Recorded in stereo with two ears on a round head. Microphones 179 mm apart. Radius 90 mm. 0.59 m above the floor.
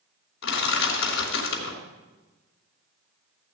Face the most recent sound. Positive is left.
turn(degrees=65)  # may be behind; listen again after turning